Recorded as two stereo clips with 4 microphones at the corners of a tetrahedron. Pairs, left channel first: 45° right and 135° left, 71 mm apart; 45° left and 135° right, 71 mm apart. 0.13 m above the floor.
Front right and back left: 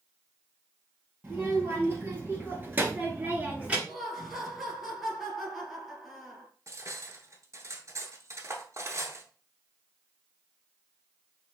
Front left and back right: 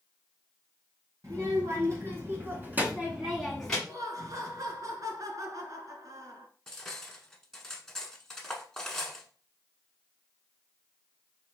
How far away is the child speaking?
About 2.5 m.